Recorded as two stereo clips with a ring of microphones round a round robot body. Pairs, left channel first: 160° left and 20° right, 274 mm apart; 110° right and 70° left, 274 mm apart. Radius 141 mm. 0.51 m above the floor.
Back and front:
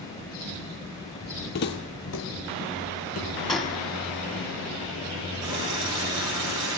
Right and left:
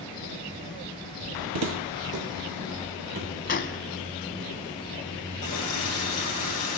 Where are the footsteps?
105° left, 0.9 m; by 3.3 s 120° left, 3 m.